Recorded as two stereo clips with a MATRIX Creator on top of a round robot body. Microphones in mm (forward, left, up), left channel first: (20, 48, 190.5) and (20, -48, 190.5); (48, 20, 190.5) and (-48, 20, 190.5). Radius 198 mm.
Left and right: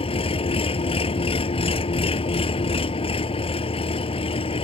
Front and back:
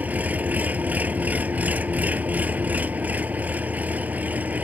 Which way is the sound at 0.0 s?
105° left.